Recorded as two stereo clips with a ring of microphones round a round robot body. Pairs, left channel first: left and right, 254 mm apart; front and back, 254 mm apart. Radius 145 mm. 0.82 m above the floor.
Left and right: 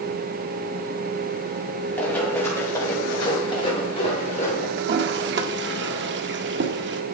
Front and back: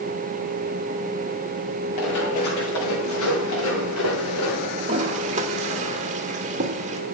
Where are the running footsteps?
5° left, 7.5 m; by 4.7 s 30° left, 6.5 m.